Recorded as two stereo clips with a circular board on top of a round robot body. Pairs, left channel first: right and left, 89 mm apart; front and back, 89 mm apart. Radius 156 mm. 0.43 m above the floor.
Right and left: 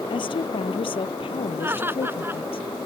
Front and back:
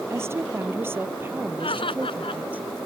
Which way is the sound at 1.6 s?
25° left.